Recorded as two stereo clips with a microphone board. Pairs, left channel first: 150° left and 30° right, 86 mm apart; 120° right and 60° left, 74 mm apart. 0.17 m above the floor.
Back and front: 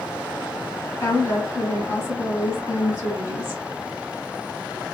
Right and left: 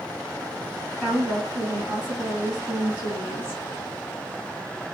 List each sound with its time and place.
1.0 s a woman speaking: 115° left, 1.6 m